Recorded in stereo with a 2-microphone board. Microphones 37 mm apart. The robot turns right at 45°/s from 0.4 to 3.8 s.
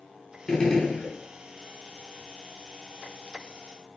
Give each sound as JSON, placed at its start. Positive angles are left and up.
{"t": 0.5, "sound": "a gunshot", "side_deg": 10, "distance_m": 0.5}